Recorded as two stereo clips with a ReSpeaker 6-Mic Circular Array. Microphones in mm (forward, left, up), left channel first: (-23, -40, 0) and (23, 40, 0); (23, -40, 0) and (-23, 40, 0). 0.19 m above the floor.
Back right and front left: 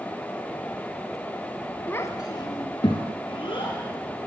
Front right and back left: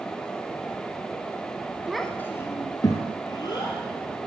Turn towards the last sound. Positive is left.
turn(degrees=-100)